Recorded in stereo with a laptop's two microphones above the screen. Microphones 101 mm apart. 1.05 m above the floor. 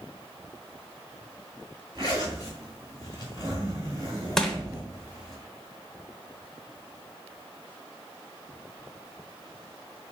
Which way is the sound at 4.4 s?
5° left (ahead or behind).